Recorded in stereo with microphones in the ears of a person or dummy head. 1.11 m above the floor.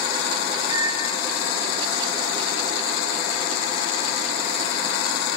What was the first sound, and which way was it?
A microwave, 30° right (ahead or behind).